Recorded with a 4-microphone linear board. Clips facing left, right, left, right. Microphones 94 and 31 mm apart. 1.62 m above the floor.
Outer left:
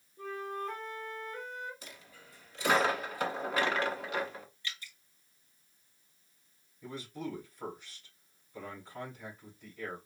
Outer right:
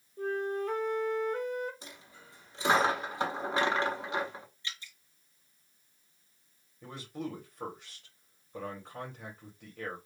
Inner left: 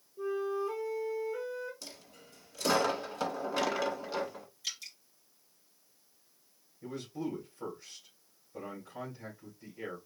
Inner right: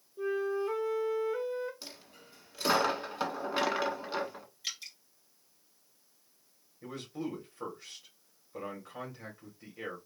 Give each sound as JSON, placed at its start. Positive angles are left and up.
{"t": 0.2, "sound": "a flute", "side_deg": -60, "distance_m": 1.3}
{"t": 1.8, "sound": "a dropped coin", "side_deg": -25, "distance_m": 1.3}
{"t": 4.6, "sound": "dripping", "side_deg": -25, "distance_m": 1.9}
{"t": 6.8, "sound": "a man speaking", "side_deg": -85, "distance_m": 3.0}